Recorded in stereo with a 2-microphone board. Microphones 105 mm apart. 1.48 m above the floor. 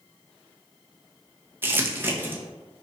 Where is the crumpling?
20° right (ahead or behind), 0.5 m.